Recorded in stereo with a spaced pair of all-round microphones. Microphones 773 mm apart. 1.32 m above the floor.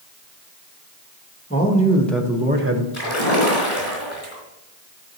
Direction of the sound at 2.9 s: 35° left (ahead or behind).